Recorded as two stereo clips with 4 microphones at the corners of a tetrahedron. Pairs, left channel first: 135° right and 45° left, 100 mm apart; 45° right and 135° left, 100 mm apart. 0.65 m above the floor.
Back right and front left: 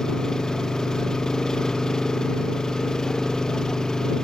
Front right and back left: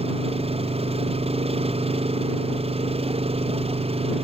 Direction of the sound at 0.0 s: 140° left.